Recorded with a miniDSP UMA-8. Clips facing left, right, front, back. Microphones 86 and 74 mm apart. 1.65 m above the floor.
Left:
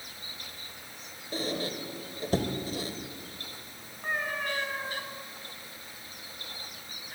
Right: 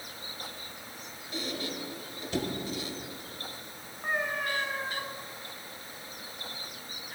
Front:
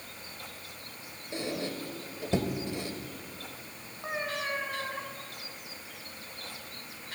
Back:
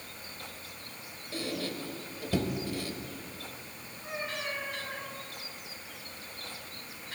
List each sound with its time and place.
1.3 s a squeak: 60° left, 1.9 m
4.0 s a cat meowing: 10° right, 3 m